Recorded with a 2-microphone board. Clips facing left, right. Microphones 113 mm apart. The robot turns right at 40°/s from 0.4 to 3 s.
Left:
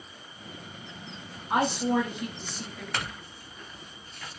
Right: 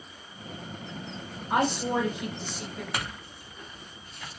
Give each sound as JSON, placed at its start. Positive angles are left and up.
{"t": 1.5, "sound": "a woman speaking", "azimuth_deg": 155, "distance_m": 1.6}
{"t": 2.9, "sound": "a clink", "side_deg": -10, "distance_m": 0.8}